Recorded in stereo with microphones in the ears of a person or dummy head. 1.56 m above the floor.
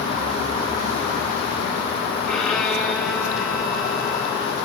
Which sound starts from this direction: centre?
A violin, at 2.3 s.